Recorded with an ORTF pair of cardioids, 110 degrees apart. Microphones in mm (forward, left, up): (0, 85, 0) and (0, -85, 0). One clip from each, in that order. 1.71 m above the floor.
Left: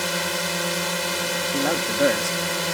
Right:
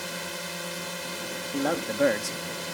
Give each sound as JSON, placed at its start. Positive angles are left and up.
{"t": 0.0, "sound": "a drone", "azimuth_deg": 55}
{"t": 1.5, "sound": "a man speaking", "azimuth_deg": 15}